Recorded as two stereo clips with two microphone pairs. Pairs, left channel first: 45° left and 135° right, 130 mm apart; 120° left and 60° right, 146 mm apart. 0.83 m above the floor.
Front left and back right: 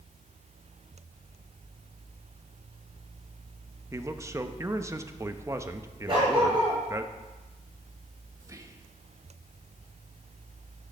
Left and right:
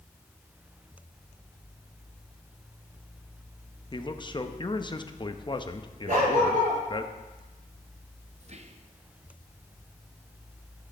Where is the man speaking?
165° left, 0.7 m.